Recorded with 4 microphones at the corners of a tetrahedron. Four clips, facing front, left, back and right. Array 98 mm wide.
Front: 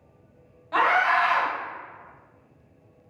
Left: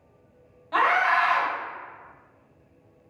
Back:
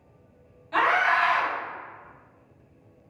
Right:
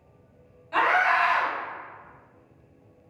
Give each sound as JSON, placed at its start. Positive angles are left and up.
{"t": 0.7, "sound": "a scream", "azimuth_deg": 35, "distance_m": 1.1}